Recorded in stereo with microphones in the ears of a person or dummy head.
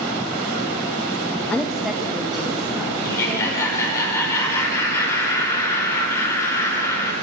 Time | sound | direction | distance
1.5 | a woman speaking | centre (ahead or behind) | 0.6 m
3.0 | laughter | 15° left (ahead or behind) | 5.5 m